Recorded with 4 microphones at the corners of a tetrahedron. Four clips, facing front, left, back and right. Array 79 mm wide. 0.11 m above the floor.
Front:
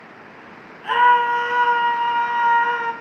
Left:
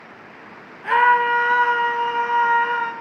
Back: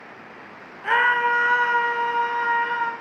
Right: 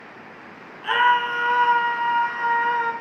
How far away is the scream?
About 1.3 m.